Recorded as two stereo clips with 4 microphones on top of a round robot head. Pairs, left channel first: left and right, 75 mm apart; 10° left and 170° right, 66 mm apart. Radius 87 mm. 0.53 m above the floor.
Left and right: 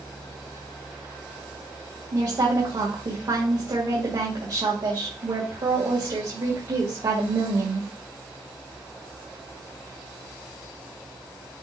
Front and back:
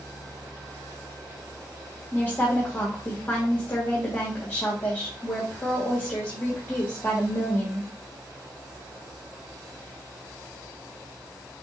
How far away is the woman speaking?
About 2 m.